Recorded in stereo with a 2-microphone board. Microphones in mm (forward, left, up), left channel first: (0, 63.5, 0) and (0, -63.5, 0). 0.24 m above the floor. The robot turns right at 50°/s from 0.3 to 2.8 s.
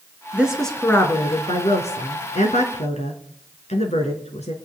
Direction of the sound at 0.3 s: 10° right.